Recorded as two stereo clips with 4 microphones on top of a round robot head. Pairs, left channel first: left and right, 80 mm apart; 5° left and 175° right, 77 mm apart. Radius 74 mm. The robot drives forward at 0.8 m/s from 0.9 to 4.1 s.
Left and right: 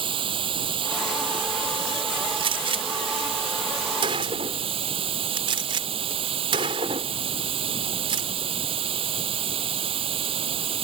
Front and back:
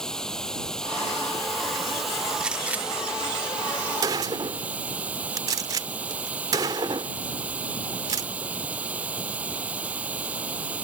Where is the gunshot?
95° right; by 8.3 s 125° right.